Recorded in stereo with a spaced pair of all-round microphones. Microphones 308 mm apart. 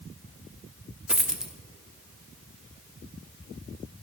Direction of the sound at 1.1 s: Centre (ahead or behind).